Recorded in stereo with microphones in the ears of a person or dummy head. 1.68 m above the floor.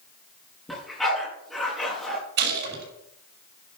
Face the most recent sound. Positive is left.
turn(degrees=-55)  # may be behind; listen again after turning